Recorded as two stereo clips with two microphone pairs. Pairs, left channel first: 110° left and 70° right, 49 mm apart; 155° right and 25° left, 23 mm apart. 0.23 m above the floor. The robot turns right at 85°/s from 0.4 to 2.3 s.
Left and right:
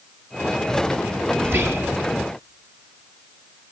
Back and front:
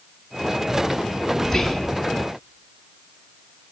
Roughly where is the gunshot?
I don't hear a gunshot.